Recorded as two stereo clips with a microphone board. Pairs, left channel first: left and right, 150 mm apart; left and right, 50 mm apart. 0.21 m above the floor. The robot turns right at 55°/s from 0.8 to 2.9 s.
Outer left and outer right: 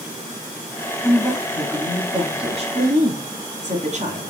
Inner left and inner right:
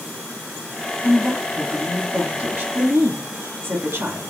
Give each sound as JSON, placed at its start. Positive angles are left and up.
{"t": 1.0, "sound": "a woman speaking", "azimuth_deg": 155, "distance_m": 1.6}